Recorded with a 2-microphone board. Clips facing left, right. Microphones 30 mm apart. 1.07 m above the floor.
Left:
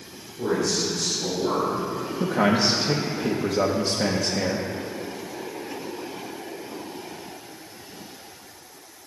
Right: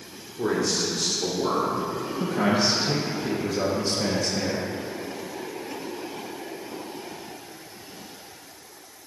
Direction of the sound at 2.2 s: 30° left (ahead or behind).